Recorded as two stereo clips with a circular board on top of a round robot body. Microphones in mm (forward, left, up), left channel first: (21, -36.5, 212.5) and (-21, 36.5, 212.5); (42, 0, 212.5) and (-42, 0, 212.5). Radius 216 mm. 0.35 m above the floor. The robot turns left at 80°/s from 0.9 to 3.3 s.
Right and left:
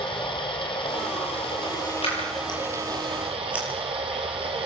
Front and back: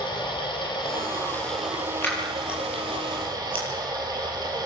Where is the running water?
35° right, 4.5 m; by 4.7 s 135° left, 4.5 m.